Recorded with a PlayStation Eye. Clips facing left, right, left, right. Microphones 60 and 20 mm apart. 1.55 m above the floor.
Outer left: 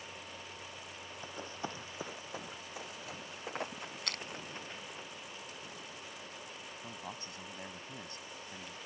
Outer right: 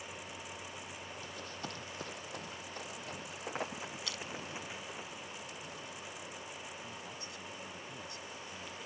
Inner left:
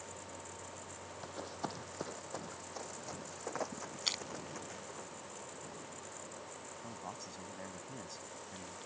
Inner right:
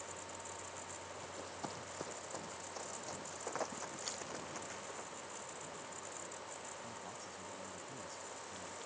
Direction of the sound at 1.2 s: 25° left (ahead or behind).